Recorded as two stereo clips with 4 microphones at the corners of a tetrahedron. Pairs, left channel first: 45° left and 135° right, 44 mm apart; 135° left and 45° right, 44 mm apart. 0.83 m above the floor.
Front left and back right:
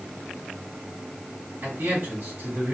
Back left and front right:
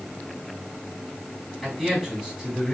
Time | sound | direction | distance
1.6 | a man speaking | 130° right | 2.5 m